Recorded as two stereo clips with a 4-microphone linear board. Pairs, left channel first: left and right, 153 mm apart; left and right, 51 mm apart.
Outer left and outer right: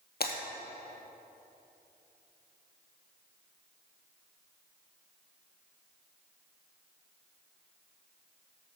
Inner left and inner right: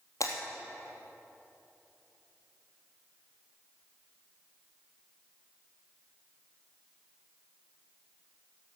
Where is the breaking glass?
75° left (ahead or behind), 2.5 m.